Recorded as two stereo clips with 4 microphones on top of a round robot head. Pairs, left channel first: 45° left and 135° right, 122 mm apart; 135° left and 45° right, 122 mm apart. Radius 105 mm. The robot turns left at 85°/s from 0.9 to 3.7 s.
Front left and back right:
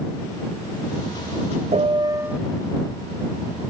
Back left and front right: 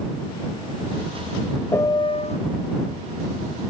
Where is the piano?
155° right; by 2.4 s 145° left.